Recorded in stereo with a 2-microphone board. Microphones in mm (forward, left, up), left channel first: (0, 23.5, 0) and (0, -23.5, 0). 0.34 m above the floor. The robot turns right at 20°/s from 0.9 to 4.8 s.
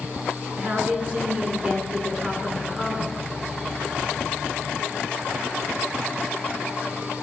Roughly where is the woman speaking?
Ahead right.